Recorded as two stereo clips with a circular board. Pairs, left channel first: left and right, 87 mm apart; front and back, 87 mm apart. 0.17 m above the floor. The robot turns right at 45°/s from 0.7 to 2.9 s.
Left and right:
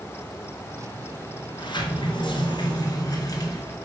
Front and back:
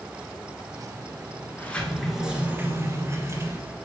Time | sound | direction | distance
1.6 | a sliding door | 65° left | 1.7 m